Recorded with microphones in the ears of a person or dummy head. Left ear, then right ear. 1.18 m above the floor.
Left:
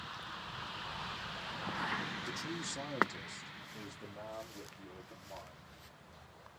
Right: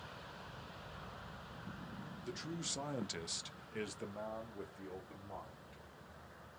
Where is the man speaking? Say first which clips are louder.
Left 4 dB; 15° left (ahead or behind), 0.7 m; by 5.8 s 65° right (ahead or behind), 1.6 m.